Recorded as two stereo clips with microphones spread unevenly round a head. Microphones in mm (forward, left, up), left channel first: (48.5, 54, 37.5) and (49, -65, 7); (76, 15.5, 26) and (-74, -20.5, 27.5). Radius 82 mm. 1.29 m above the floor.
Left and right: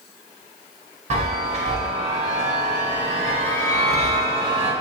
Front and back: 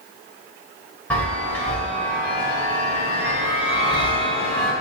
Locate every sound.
1.1 s a chime: 65° right, 1.5 m